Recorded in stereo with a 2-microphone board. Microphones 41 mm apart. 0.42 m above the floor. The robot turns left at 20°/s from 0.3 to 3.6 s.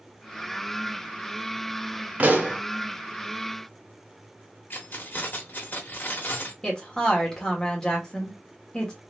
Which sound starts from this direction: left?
Keys jangling, at 4.7 s.